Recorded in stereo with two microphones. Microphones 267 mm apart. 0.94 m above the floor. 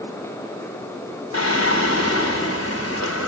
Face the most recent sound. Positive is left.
turn(degrees=60)  # may be behind; listen again after turning